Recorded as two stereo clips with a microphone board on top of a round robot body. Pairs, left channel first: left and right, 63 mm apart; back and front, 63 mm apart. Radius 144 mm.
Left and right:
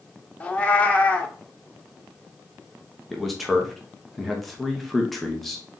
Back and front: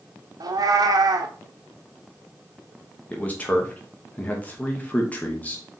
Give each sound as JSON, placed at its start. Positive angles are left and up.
{"t": 0.4, "sound": "a cat meowing", "azimuth_deg": 15, "distance_m": 0.8}
{"t": 3.1, "sound": "a man speaking", "azimuth_deg": 175, "distance_m": 1.2}